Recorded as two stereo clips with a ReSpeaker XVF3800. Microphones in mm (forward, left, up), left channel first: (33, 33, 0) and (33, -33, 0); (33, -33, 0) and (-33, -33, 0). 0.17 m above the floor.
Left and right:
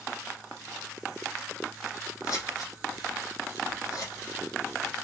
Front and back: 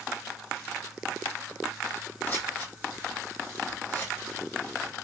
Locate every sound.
2.2 s scissors: 60° left, 2.5 m